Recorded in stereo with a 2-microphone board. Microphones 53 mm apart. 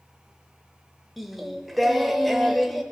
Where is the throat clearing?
No throat clearing in this recording.